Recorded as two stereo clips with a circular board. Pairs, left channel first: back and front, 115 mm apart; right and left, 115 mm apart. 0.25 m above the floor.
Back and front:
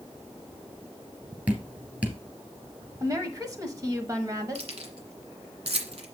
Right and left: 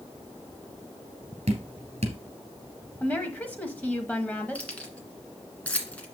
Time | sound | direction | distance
1.5 | dripping | 75° left | 2.5 m
3.0 | a woman speaking | 25° right | 1.2 m
4.5 | keys jangling | 15° right | 1.8 m